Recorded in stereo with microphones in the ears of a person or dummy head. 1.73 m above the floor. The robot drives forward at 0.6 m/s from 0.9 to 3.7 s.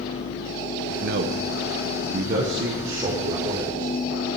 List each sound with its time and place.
1.0 s a man speaking: 65° right (ahead or behind), 1.0 m; by 2.7 s 40° right (ahead or behind), 1.3 m
2.8 s a man speaking: 30° right (ahead or behind), 5.5 m